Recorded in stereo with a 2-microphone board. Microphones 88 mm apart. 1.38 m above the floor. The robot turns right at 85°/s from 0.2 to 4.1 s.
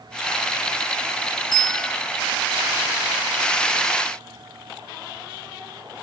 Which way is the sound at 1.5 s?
120° left.